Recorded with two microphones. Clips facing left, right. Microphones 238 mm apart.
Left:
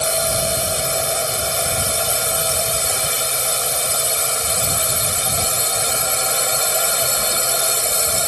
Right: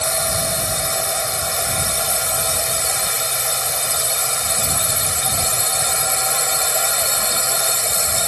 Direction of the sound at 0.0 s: 35° left (ahead or behind).